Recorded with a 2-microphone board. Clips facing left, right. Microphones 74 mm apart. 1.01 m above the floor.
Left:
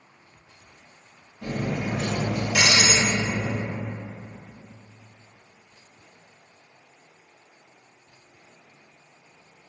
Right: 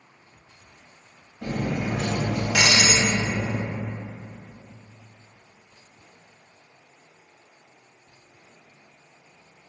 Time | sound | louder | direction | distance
1.4 | cutlery clinking | right 1 dB | 70° right (ahead or behind) | 0.9 m